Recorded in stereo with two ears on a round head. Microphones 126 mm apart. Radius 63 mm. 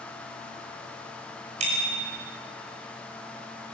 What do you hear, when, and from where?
1.6 s a bicycle bell: 50° right (ahead or behind), 5.5 m